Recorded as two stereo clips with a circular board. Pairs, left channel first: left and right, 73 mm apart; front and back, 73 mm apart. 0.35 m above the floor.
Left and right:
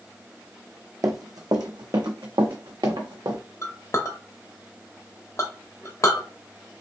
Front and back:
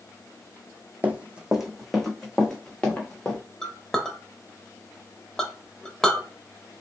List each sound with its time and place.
1.0 s running footsteps: 120° right, 0.7 m; by 3.4 s 70° right, 1.6 m
3.6 s a clink: 75° left, 0.7 m